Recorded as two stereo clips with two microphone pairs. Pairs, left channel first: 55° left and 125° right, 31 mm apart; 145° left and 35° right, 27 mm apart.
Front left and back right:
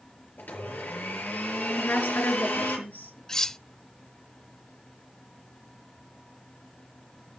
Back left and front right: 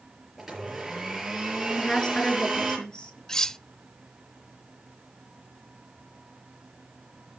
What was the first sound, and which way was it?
A blender, 45° left.